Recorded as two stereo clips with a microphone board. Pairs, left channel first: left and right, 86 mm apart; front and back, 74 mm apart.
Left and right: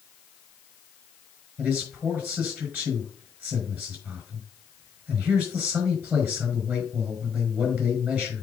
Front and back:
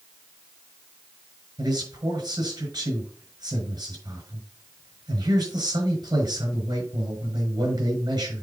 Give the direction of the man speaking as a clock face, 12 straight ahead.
5 o'clock.